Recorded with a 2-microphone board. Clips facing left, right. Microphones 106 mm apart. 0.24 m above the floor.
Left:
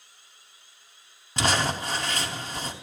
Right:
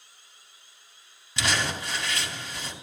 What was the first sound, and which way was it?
Crumpling, 50° left (ahead or behind).